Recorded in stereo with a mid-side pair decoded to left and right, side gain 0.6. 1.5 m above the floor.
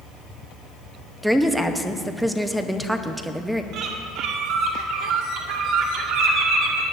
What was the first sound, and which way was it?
A woman speaking, straight ahead.